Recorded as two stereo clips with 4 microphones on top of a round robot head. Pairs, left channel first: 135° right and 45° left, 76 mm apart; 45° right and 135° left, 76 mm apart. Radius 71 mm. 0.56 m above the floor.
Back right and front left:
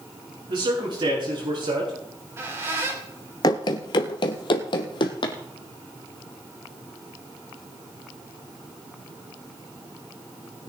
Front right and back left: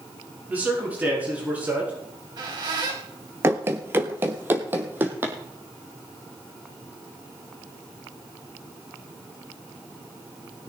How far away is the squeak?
About 3 m.